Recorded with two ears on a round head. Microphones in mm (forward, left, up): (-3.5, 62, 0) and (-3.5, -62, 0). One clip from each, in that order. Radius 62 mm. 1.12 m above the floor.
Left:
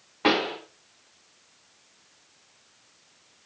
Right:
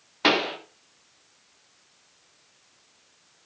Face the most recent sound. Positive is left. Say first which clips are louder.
# right 1 dB
turn(degrees=-80)